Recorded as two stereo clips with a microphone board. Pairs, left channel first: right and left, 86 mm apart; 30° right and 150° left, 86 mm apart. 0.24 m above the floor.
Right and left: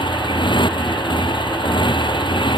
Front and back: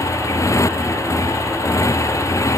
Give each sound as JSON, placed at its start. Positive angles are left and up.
{"t": 0.0, "sound": "a motorcycle", "azimuth_deg": -80}